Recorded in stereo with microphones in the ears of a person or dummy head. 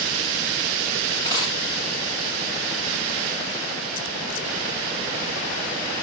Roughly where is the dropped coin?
Left.